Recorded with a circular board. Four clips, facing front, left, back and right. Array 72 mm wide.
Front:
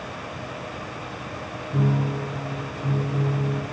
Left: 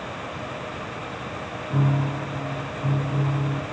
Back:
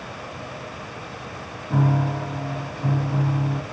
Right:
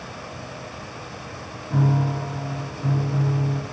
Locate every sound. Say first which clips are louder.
1.7 s a piano: right 2 dB, back 2 dB; straight behind, 4 m